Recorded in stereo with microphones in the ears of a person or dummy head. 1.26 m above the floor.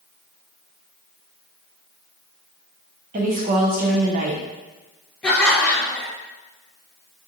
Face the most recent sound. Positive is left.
turn(degrees=10)  # may be behind; listen again after turning